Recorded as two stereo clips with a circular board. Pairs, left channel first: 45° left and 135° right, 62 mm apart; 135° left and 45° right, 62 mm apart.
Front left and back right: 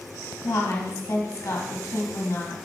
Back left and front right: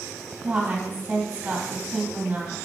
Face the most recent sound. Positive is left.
turn(degrees=25)